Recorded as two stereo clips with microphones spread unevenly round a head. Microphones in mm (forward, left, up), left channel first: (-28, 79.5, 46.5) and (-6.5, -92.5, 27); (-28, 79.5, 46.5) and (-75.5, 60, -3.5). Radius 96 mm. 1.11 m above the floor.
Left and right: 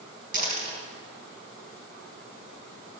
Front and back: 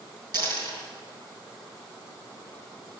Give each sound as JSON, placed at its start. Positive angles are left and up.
{"t": 0.3, "sound": "a dropped coin", "azimuth_deg": -135, "distance_m": 5.0}